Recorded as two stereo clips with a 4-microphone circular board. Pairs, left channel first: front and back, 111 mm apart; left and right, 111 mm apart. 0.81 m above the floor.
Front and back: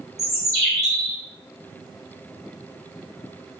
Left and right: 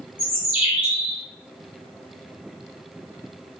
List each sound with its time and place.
0.2 s a bird: 125° left, 2 m